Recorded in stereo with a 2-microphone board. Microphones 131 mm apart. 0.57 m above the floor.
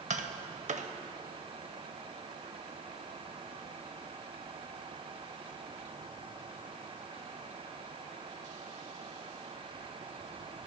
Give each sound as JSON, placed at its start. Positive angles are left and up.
{"t": 0.1, "sound": "tapping", "side_deg": -65, "distance_m": 0.6}